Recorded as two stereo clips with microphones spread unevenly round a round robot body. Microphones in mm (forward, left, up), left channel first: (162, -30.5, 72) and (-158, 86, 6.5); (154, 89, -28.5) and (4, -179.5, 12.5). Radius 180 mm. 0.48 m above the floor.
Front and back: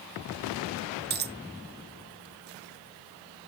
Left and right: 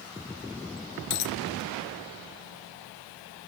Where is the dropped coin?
95° left.